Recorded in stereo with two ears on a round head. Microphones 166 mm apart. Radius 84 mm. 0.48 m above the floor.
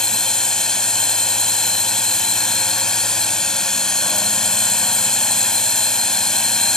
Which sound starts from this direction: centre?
A drone, at 0.0 s.